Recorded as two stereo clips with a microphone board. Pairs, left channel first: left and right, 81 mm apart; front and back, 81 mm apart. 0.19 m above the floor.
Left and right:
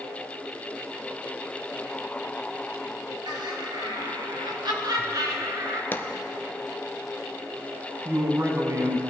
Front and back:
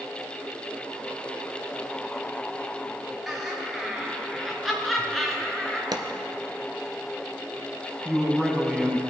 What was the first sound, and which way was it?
Laughter, 90° right.